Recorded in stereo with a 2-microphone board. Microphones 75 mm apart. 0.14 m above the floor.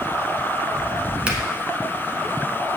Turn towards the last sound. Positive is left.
turn(degrees=-15)  # may be behind; listen again after turning